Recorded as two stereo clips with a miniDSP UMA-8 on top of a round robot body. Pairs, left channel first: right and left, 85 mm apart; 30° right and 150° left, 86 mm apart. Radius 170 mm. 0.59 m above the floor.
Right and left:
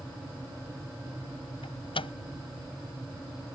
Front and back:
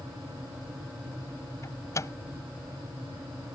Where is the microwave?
85° right.